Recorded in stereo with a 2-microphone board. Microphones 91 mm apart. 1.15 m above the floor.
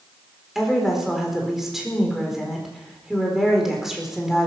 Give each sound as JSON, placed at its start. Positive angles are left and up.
{"t": 0.6, "sound": "a woman speaking", "side_deg": -5, "distance_m": 4.0}